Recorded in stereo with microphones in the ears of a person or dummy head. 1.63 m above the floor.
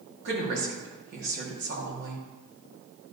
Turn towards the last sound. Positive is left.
turn(degrees=-65)  # may be behind; listen again after turning